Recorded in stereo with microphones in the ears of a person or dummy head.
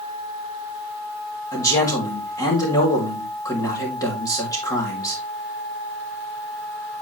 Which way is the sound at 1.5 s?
20° left (ahead or behind).